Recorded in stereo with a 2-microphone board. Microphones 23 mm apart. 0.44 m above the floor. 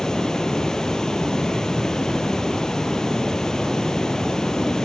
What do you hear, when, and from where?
0.0 s running water: 30° left (ahead or behind), 4 m